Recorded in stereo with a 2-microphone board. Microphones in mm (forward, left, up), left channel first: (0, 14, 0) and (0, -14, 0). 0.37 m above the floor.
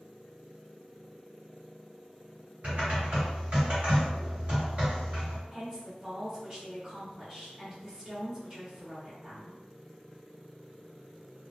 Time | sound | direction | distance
2.6 | typing on a keyboard | 50° right (ahead or behind) | 1.9 m
5.5 | a woman speaking | 20° right (ahead or behind) | 1.3 m